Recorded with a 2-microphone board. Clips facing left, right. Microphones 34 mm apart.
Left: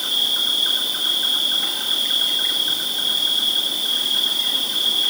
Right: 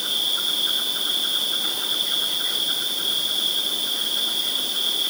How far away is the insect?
About 8.5 m.